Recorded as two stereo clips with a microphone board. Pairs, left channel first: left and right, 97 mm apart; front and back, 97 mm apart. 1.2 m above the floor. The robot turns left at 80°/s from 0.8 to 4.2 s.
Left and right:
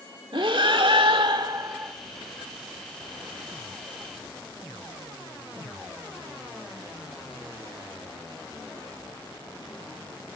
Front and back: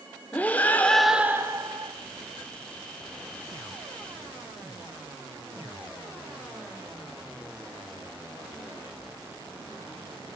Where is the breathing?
75° right, 1.4 m; by 1.9 s 165° right, 1.4 m.